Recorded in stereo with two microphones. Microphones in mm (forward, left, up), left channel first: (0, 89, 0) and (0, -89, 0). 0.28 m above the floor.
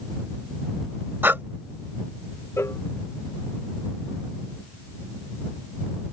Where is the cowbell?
15° left (ahead or behind).